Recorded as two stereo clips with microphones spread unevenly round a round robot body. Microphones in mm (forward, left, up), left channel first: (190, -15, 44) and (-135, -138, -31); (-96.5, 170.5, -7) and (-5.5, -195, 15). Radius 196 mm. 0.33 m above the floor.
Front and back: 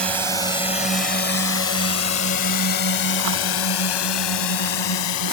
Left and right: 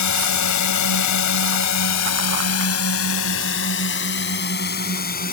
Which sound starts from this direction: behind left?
A drone, at 0.0 s.